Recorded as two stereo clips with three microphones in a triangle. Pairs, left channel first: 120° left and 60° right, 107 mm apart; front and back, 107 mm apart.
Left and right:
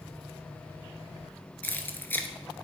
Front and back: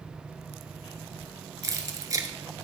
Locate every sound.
1.6 s keys jangling: 175° left, 1.0 m